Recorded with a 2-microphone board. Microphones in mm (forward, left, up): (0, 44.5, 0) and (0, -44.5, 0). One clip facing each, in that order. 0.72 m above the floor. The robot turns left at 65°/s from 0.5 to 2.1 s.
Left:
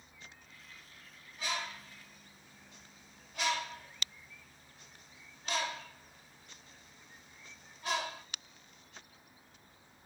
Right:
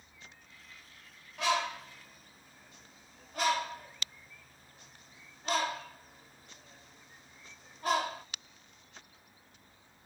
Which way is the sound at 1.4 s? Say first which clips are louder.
Right 9 dB; 75° right (ahead or behind).